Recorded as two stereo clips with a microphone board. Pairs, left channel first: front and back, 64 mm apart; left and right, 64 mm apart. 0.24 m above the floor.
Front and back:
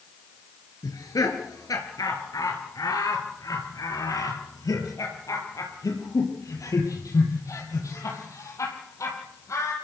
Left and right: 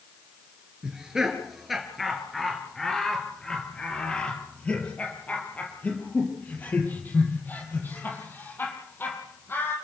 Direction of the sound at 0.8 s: 10° right.